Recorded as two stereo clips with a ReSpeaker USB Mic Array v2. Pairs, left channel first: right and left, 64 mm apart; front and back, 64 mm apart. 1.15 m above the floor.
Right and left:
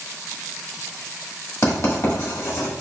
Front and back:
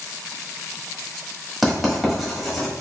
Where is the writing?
90° right, 1.4 m.